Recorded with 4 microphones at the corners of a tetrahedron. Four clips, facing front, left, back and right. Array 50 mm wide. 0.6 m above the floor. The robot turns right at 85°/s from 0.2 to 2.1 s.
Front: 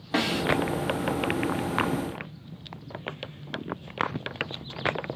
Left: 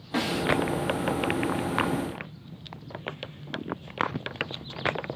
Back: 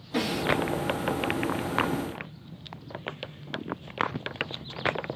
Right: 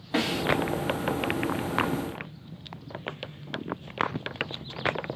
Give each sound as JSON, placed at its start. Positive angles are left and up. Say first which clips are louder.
{"t": 0.1, "sound": "a snare drum", "louder": "even, front 2 dB", "azimuth_deg": -15, "distance_m": 3.0}